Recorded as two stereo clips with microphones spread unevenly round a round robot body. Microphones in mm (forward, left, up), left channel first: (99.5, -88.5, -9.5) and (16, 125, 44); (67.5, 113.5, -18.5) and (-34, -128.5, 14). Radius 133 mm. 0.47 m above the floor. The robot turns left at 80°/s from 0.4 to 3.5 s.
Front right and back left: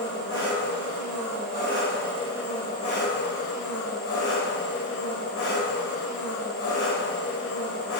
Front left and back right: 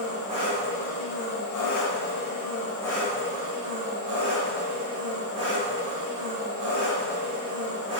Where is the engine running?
175° right, 1.4 m; by 8.0 s 65° right, 1.4 m.